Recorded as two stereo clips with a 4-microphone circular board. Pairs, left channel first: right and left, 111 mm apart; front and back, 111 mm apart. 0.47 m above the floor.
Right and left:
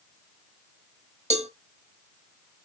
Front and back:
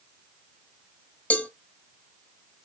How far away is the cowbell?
About 1.3 m.